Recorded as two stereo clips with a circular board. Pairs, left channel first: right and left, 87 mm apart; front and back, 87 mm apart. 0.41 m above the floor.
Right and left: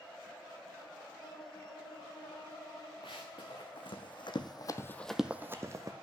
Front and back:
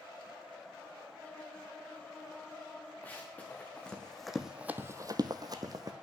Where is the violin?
75° right, 1.0 m.